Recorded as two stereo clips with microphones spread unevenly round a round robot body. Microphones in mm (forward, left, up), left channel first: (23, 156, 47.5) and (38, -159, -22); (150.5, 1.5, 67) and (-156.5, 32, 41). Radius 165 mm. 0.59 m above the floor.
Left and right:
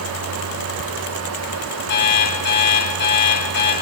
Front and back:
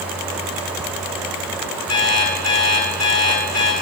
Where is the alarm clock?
35° left, 4 m.